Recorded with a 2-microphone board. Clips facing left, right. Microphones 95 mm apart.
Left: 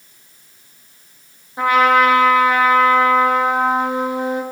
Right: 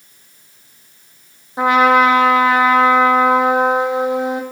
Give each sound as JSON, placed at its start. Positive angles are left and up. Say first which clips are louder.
{"t": 1.6, "sound": "a trumpet", "louder": "right 2 dB", "side_deg": -20, "distance_m": 1.0}